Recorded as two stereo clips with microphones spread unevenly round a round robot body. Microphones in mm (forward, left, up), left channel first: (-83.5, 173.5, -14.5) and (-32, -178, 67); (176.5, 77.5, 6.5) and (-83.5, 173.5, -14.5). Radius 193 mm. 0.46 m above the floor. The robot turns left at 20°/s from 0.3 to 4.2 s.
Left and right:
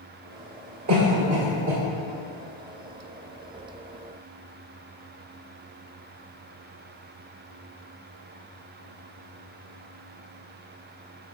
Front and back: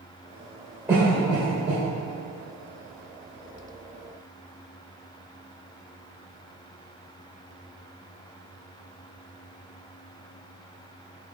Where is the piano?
No piano in this recording.